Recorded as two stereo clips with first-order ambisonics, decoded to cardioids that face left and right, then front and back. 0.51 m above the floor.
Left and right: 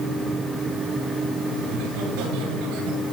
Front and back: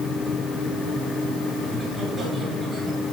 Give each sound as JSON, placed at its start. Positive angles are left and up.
{"t": 1.6, "sound": "laughter", "azimuth_deg": -95, "distance_m": 9.5}